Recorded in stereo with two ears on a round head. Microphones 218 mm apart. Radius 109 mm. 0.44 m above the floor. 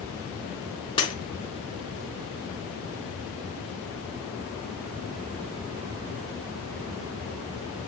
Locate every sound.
1.0 s breaking glass: 20° left (ahead or behind), 3.5 m